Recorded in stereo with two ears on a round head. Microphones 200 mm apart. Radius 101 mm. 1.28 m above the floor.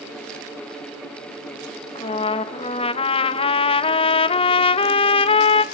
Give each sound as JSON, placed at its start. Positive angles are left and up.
{"t": 1.9, "sound": "a trumpet", "side_deg": 25, "distance_m": 0.7}